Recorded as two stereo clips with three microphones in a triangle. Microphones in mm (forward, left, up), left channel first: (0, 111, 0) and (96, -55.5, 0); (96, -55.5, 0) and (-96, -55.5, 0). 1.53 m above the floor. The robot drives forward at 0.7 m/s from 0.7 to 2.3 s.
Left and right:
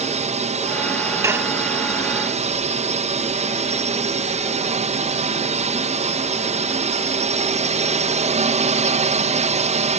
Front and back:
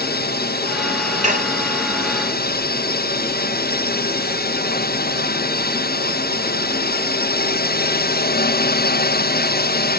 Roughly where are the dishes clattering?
Behind right.